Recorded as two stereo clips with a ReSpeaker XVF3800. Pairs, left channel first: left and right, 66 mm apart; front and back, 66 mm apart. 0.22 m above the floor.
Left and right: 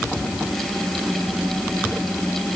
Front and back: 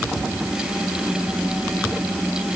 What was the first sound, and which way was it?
Only background noise.